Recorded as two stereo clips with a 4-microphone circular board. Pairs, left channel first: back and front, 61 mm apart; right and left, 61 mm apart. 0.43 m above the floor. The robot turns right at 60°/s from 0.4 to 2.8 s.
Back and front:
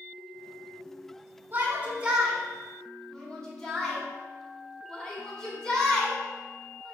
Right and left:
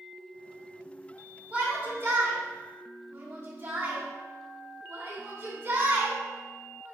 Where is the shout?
30° left, 1.4 m; by 7.0 s 110° left, 1.4 m.